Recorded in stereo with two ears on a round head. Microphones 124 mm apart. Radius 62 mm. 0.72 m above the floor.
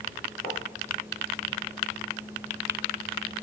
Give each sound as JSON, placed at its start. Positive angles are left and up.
{"t": 0.4, "sound": "writing", "side_deg": 35, "distance_m": 9.5}